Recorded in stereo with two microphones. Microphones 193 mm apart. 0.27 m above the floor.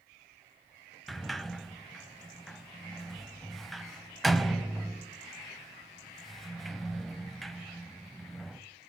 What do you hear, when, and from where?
1.1 s a sliding door: centre (ahead or behind), 0.5 m